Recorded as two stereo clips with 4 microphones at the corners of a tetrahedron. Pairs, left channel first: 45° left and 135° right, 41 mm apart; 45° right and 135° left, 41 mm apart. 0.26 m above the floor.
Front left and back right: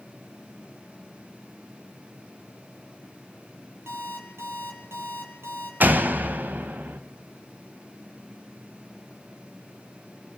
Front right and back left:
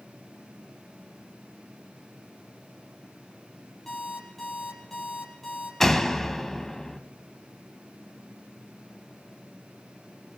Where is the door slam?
125° right, 1.1 m.